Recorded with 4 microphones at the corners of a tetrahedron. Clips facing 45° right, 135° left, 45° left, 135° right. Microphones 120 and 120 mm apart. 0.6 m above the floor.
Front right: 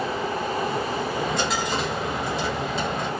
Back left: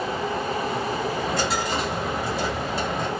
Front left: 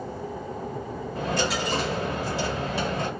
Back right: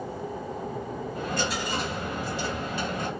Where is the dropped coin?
50° left, 1.1 m.